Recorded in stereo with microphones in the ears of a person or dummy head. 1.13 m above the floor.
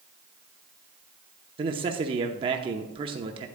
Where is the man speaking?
30° right (ahead or behind), 0.8 m.